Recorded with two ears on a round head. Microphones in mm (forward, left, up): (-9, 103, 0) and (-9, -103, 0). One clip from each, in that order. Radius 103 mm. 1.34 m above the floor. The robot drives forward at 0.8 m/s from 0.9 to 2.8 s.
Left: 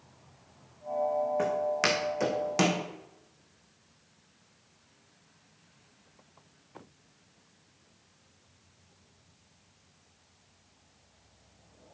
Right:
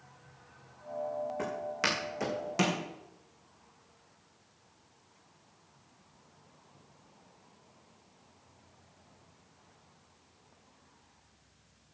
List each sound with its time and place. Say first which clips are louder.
1.4 s footsteps: left 5 dB; 10° left (ahead or behind), 4.5 m; by 2.8 s 15° left (ahead or behind), 2.5 m